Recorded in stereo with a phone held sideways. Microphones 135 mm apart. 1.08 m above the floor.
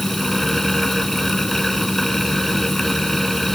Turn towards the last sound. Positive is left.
turn(degrees=0)  # may be behind; listen again after turning